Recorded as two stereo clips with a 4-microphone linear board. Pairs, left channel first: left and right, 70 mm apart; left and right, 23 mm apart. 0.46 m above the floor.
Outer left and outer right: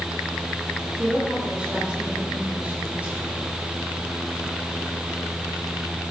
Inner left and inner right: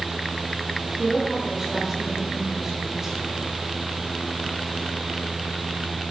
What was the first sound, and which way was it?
A woman speaking, 10° right (ahead or behind).